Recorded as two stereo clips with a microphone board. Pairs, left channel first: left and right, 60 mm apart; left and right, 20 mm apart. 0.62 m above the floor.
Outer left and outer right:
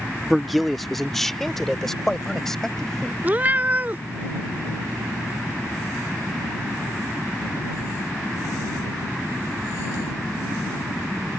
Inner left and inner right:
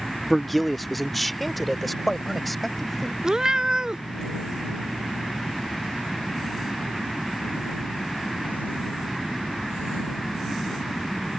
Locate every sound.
0.3 s a man speaking: 5° right (ahead or behind); by 3.1 s 5° left (ahead or behind)
3.2 s a cat meowing: 30° right (ahead or behind)